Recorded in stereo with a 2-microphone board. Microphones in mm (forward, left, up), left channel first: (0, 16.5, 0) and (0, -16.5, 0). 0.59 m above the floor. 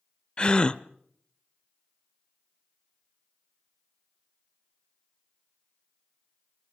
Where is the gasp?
30° left (ahead or behind), 0.6 m.